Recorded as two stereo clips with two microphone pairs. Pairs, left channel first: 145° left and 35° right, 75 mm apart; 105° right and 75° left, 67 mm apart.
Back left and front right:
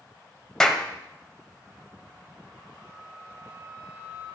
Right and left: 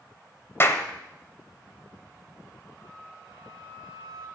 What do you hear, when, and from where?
0.6 s a clap: 140° right, 1.1 m
2.8 s a flute: 95° right, 2.0 m